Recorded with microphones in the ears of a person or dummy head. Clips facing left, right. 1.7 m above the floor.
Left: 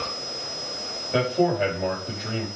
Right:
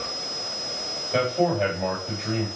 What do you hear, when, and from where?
1.1 s a man speaking: 5° left (ahead or behind), 3.5 m